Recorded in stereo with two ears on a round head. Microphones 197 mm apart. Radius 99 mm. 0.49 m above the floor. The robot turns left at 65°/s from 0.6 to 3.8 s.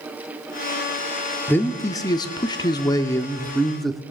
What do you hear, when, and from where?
1.5 s a man speaking: 10° left (ahead or behind), 0.6 m; by 4.0 s centre (ahead or behind), 0.6 m